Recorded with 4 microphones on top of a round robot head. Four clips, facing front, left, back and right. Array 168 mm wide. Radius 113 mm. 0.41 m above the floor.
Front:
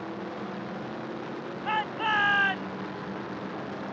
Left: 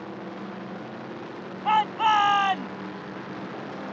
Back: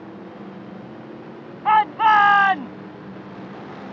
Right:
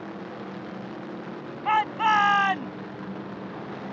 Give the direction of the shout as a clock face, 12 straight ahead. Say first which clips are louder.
Left 1 dB, back 14 dB; 6 o'clock.